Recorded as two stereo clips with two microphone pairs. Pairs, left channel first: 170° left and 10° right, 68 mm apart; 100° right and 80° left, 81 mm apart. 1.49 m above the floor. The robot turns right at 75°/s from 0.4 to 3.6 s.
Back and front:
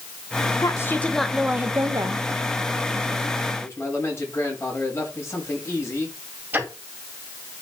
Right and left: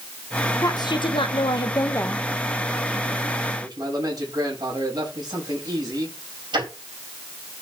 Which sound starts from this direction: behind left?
A man speaking, at 3.6 s.